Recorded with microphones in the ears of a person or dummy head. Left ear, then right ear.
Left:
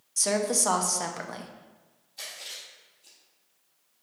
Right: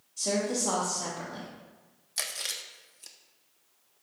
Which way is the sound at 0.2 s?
60° left (ahead or behind).